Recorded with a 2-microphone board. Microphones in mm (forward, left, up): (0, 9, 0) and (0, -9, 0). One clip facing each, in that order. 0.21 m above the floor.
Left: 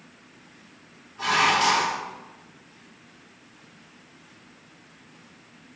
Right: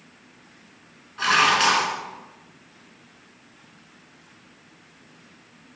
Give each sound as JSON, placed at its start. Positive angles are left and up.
{"t": 1.2, "sound": "dishes clattering", "side_deg": -60, "distance_m": 1.5}